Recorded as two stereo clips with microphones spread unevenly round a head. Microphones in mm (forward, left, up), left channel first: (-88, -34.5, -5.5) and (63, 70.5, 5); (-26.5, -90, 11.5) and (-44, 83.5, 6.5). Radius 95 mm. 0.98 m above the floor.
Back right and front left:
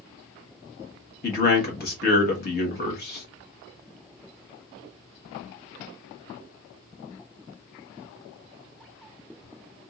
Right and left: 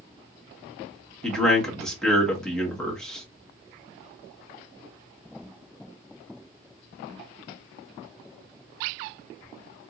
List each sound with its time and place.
1.2 s a man speaking: 170° right, 1.4 m